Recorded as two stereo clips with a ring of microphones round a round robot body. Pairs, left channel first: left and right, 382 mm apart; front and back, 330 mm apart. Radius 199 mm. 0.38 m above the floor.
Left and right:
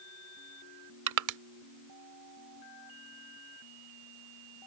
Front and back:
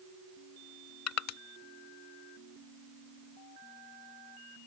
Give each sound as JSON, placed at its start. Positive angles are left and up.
{"t": 1.1, "sound": "crushing", "azimuth_deg": -45}